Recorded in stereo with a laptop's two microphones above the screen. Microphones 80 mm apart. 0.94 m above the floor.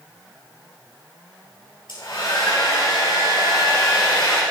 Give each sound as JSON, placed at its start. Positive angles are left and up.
{"t": 1.9, "sound": "a hair dryer", "side_deg": 75, "distance_m": 6.5}